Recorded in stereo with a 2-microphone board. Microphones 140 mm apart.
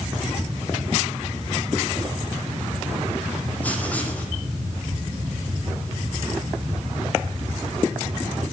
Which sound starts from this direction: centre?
Writing, at 3.6 s.